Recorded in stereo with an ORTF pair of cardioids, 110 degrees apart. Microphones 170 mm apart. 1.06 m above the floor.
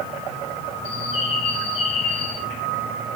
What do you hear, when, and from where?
0.8 s a bird: 35° left, 3 m